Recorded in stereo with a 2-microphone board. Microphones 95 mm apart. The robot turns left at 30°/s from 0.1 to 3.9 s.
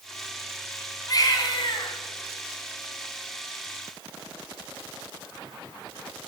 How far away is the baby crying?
About 2.5 m.